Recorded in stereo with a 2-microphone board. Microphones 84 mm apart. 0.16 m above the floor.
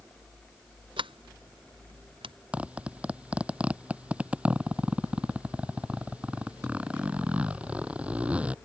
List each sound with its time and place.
1.0 s a sliding door: 75° right (ahead or behind)
2.5 s a zipper: 15° right (ahead or behind)